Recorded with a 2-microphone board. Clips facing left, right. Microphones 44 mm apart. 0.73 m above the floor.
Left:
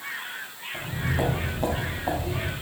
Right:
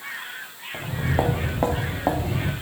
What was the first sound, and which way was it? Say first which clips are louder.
Footsteps: right 3 dB; 30° right (ahead or behind).